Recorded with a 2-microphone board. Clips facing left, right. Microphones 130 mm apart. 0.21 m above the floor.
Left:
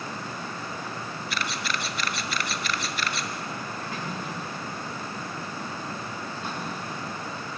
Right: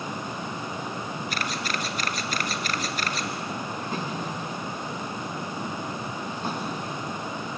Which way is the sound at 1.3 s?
45° right (ahead or behind).